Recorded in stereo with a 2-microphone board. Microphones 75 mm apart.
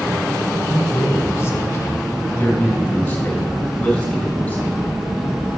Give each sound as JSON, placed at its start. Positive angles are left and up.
{"t": 0.7, "sound": "a man speaking", "side_deg": 45, "distance_m": 2.0}